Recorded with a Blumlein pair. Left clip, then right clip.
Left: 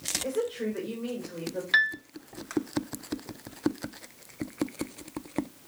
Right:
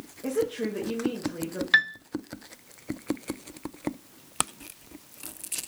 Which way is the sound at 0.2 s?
10° right.